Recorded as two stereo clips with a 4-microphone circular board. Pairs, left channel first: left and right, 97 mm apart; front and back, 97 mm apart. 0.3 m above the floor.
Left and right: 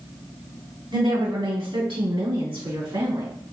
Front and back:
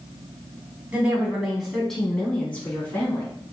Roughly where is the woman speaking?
Right.